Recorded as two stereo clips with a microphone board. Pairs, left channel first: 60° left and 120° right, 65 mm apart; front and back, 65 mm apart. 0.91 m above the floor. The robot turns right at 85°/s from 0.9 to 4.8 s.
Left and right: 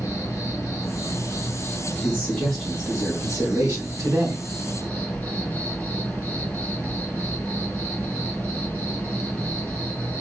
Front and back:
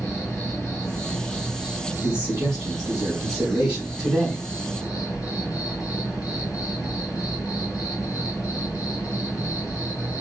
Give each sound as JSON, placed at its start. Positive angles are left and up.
{"t": 0.0, "sound": "an insect", "azimuth_deg": 25, "distance_m": 1.5}
{"t": 2.0, "sound": "a man speaking", "azimuth_deg": 100, "distance_m": 2.5}